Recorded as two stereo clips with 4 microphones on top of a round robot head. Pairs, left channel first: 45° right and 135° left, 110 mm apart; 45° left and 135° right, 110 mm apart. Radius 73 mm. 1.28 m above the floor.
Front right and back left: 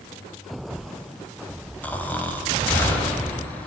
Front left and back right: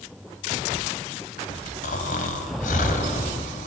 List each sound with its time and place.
1.8 s snoring: 30° left, 3.5 m